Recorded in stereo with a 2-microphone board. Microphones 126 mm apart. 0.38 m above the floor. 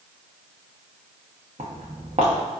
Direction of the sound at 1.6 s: 60° right (ahead or behind).